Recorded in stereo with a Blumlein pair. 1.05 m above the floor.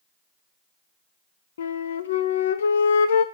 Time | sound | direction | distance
1.6 | a flute | 65° left | 0.5 m